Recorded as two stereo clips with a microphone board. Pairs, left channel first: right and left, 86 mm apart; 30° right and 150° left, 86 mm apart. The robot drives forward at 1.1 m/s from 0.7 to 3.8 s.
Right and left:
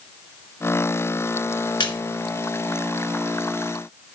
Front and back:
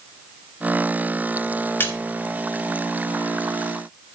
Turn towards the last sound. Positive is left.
turn(degrees=-140)